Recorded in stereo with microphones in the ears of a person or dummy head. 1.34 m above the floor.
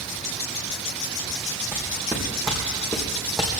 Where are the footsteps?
15° right (ahead or behind), 4 m; by 3.6 s centre (ahead or behind), 3.5 m.